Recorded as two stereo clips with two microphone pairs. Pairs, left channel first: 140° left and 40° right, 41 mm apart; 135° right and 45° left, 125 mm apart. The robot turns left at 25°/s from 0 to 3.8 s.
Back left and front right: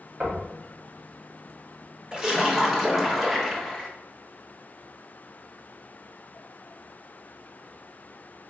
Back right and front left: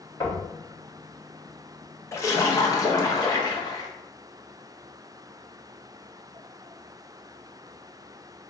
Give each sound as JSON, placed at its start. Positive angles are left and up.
{"t": 0.2, "sound": "knocking", "azimuth_deg": -80, "distance_m": 1.3}
{"t": 2.1, "sound": "a splash", "azimuth_deg": -95, "distance_m": 0.8}